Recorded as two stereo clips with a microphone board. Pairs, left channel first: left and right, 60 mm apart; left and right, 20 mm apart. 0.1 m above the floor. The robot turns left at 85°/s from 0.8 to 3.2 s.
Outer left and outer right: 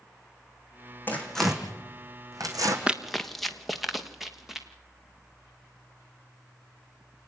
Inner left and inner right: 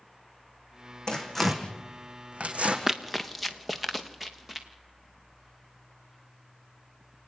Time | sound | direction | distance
1.1 | tearing paper | 30° left (ahead or behind) | 2.5 m
2.9 | running footsteps | 20° right (ahead or behind) | 1.0 m